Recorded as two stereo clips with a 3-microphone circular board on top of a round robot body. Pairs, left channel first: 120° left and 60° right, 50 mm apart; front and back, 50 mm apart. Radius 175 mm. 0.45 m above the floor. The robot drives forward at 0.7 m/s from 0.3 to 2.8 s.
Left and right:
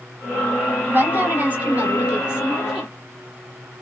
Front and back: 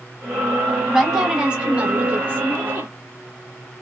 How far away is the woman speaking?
About 2 m.